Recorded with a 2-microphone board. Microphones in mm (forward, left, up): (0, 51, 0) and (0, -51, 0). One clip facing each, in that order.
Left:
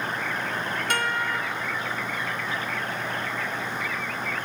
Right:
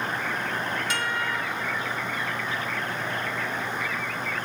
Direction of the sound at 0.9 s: 60° left (ahead or behind).